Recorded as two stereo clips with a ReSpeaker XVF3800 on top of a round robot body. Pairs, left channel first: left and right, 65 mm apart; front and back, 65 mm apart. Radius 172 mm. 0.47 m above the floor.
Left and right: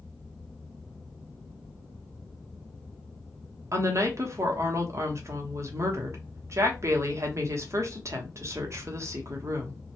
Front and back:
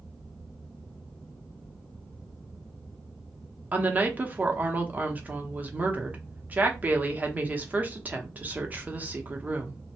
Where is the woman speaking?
120° right, 1.0 m.